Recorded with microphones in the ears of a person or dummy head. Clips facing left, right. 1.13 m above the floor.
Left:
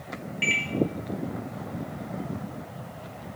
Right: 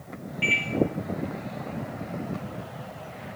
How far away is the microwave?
About 0.7 m.